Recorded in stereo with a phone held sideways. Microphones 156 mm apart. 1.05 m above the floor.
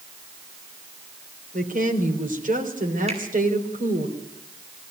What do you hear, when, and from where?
1.5 s a woman speaking: 60° right (ahead or behind), 4 m
3.1 s a finger snap: 45° right (ahead or behind), 7.5 m